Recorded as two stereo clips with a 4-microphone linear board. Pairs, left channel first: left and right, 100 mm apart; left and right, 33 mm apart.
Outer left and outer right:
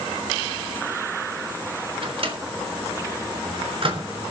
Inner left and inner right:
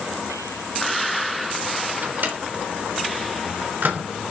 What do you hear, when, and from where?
2.0 s a microwave: 65° right (ahead or behind), 3.5 m